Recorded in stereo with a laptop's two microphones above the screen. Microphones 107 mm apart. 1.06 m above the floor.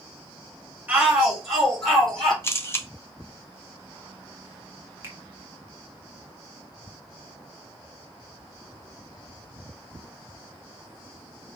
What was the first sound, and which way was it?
A shout, 15° right (ahead or behind).